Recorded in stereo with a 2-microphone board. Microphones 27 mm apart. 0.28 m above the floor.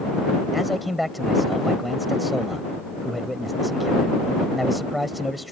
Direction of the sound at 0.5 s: Centre (ahead or behind).